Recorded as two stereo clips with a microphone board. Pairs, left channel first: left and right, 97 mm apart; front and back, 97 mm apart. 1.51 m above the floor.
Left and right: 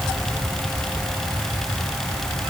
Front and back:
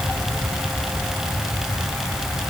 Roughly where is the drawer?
No drawer in this recording.